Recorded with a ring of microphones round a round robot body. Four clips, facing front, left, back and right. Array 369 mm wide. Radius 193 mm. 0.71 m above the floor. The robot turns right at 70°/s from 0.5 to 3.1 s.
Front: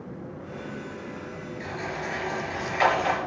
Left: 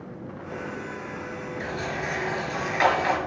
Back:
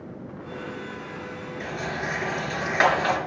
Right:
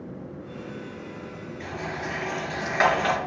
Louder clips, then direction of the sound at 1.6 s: Left 1 dB, back 2 dB; 115° left.